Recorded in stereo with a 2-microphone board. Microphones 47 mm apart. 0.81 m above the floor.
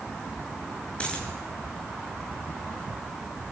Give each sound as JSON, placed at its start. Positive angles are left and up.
{"t": 1.0, "sound": "a dropped coin", "side_deg": 25, "distance_m": 6.5}